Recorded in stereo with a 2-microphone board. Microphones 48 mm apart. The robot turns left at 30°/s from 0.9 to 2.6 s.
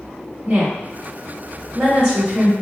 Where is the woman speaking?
25° right (ahead or behind), 1.0 m; by 2.5 s 20° right (ahead or behind), 1.0 m.